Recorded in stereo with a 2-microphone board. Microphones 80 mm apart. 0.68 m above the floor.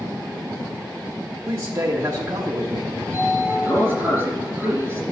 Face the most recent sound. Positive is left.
turn(degrees=-25)  # may be behind; listen again after turning